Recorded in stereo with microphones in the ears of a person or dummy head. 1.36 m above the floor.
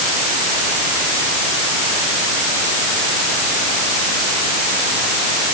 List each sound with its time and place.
Only background noise.